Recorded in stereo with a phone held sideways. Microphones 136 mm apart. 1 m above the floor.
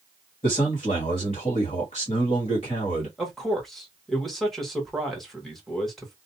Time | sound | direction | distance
0.4 | a man speaking | 50° left (ahead or behind) | 1.3 m
3.2 | a man speaking | centre (ahead or behind) | 1.1 m